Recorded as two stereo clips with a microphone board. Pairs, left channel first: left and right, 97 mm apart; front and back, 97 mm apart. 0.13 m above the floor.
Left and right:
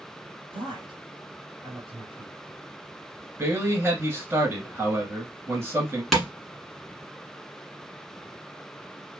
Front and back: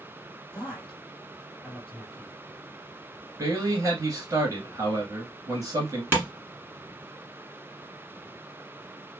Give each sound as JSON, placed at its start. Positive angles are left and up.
{"t": 0.5, "sound": "a man speaking", "azimuth_deg": -75, "distance_m": 2.5}
{"t": 3.4, "sound": "a man speaking", "azimuth_deg": -145, "distance_m": 1.7}
{"t": 6.1, "sound": "tapping", "azimuth_deg": 175, "distance_m": 1.4}